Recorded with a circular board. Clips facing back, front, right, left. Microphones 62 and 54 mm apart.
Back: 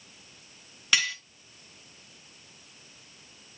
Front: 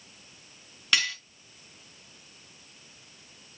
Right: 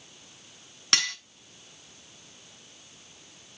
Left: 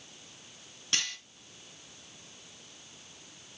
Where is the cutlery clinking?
90° right, 2 m.